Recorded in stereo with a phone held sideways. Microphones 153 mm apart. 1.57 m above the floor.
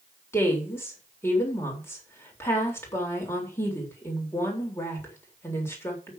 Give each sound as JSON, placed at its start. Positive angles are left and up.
{"t": 0.3, "sound": "a woman speaking", "side_deg": 15, "distance_m": 4.0}